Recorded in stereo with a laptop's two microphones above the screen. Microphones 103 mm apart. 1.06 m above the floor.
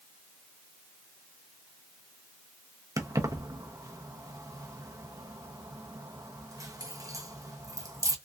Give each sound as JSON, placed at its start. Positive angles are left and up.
{"t": 3.0, "sound": "keys jangling", "side_deg": -30, "distance_m": 0.6}